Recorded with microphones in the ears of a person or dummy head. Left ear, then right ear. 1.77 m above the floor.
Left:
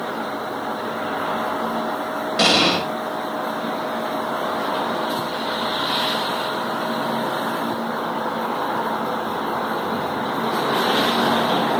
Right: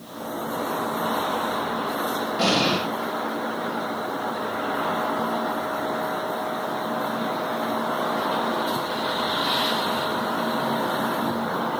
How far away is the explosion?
About 6.5 m.